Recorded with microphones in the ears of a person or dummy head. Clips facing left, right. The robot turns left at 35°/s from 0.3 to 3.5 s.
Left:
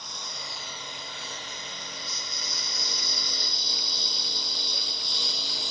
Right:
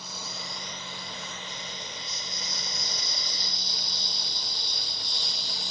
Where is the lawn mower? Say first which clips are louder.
Right 2 dB; 5° right (ahead or behind); by 5.7 s 65° left (ahead or behind).